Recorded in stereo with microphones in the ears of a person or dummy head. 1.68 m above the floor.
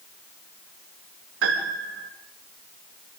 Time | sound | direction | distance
1.4 | a piano | 90° right | 6.5 m